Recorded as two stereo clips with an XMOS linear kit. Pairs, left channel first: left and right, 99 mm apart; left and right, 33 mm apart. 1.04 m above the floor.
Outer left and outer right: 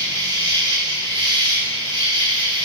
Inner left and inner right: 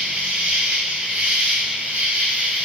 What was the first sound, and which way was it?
An insect, 55° right (ahead or behind).